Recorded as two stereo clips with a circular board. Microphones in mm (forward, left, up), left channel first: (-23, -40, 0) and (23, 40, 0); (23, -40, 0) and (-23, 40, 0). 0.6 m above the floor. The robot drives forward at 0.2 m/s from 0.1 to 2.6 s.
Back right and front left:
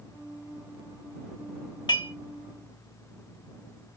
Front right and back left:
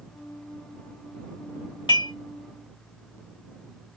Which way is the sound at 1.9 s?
85° right.